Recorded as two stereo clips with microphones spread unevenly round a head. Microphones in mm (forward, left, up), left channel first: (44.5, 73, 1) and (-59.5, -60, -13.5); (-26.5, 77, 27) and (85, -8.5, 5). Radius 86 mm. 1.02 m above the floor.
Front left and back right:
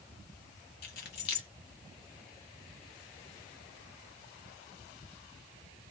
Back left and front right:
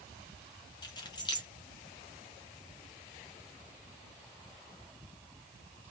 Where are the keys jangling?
80° left, 0.8 m.